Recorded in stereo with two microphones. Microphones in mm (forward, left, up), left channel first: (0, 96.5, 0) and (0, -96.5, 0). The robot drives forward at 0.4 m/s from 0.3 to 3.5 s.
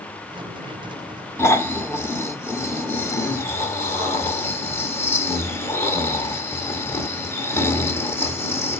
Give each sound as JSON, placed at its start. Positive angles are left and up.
{"t": 1.4, "sound": "snoring", "side_deg": 15, "distance_m": 1.4}